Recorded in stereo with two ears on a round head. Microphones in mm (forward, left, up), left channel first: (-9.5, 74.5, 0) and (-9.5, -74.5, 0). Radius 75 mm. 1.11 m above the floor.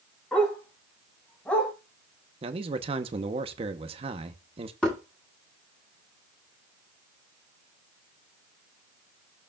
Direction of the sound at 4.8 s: 5° left (ahead or behind).